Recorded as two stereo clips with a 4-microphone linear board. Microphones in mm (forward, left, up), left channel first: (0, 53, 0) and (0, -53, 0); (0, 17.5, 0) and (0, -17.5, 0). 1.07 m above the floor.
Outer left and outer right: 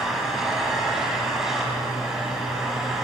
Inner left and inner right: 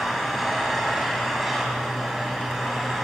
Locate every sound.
0.0 s an engine running: 5° right (ahead or behind), 6 m